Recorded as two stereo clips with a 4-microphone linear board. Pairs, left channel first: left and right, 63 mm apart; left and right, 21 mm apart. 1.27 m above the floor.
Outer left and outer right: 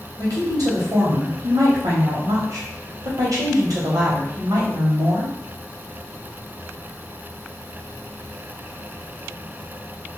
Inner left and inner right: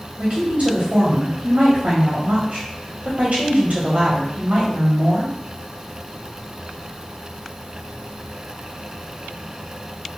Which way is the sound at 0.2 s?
75° right (ahead or behind).